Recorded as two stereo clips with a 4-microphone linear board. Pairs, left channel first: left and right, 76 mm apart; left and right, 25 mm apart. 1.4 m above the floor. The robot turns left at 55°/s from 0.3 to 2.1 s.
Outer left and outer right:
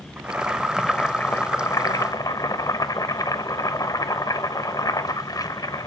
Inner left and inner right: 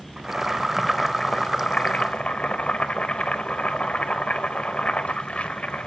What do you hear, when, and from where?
0.2 s boiling: 160° right, 0.8 m; by 5.9 s 100° left, 0.8 m